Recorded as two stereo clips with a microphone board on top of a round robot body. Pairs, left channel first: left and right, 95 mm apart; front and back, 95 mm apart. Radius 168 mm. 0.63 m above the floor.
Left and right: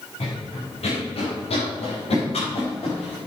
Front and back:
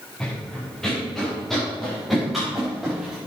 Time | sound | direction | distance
0.2 | running footsteps | 85° left | 7.5 m